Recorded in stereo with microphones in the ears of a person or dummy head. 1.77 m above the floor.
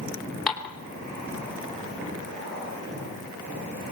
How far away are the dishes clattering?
About 3.5 m.